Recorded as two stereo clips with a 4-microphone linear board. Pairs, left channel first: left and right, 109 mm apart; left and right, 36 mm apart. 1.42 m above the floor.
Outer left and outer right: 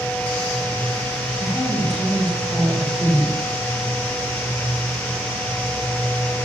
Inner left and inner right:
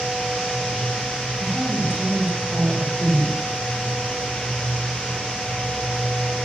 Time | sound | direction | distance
1.4 | a woman speaking | 5° right (ahead or behind) | 4.5 m